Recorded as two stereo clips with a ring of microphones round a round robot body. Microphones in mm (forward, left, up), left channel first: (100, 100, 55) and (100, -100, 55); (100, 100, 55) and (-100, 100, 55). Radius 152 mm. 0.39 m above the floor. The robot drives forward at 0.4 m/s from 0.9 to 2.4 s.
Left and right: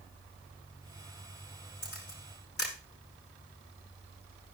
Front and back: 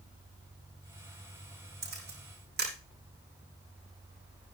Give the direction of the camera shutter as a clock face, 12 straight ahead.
7 o'clock.